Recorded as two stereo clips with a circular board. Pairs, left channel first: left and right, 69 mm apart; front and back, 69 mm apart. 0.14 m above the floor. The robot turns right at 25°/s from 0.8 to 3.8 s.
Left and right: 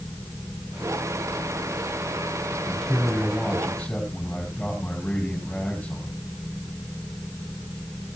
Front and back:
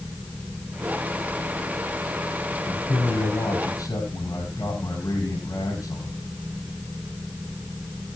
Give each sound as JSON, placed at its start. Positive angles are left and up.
{"t": 2.7, "sound": "a man speaking", "azimuth_deg": -10, "distance_m": 5.0}